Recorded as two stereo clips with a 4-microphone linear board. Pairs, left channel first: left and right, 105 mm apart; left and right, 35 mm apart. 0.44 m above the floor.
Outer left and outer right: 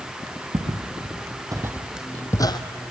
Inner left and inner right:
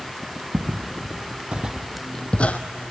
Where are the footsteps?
60° right (ahead or behind), 2.5 m; by 2.6 s 45° left (ahead or behind), 1.3 m.